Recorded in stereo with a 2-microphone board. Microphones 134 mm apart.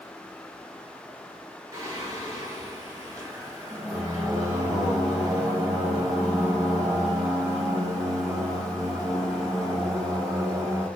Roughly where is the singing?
Right.